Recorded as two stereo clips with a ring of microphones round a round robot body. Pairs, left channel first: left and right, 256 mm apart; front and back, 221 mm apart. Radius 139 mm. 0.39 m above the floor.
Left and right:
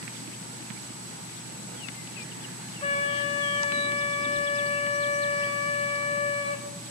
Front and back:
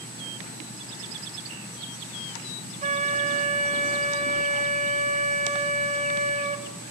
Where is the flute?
145° left, 0.9 m.